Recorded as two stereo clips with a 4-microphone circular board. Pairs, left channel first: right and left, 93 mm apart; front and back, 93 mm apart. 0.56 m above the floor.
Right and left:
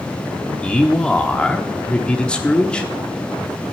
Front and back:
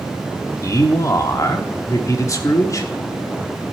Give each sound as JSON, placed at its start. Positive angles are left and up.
{"t": 0.6, "sound": "a man speaking", "azimuth_deg": -20, "distance_m": 1.2}